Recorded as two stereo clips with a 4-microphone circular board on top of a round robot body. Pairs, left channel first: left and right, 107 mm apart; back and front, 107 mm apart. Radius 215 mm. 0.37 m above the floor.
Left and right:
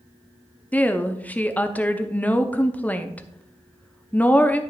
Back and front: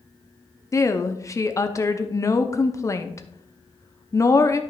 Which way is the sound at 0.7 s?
155° left.